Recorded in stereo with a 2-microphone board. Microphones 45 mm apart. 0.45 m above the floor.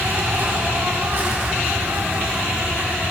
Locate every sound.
0.0 s an insect: 45° right (ahead or behind), 5.5 m